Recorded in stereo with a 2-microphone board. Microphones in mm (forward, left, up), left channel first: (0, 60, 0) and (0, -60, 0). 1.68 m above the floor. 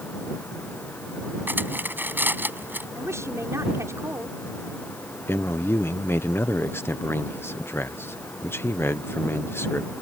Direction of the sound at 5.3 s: 20° left (ahead or behind).